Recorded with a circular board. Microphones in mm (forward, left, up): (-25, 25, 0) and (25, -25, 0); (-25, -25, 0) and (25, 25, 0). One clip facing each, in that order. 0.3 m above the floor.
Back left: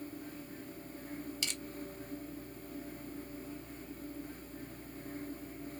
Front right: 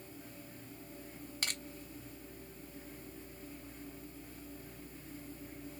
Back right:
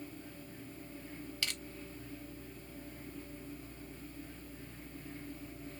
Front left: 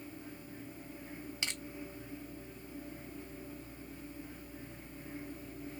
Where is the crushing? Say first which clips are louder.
Front right 1 dB, even; 15° right, 0.5 m.